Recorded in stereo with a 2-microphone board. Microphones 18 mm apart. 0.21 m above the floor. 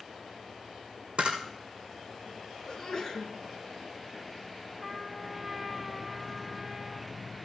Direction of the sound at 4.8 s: 5° right (ahead or behind).